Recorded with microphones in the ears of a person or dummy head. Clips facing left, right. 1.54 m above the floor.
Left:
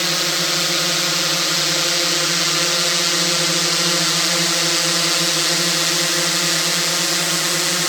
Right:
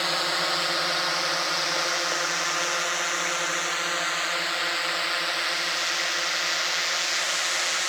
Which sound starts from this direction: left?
A drone, at 0.0 s.